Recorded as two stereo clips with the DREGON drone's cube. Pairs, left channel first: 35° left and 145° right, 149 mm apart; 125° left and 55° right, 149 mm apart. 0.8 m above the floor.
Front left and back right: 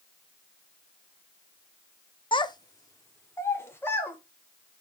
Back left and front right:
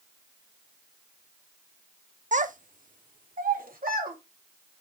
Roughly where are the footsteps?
No footsteps in this recording.